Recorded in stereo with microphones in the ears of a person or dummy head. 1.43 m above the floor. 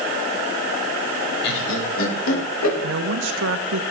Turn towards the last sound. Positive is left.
turn(degrees=-60)  # may be behind; listen again after turning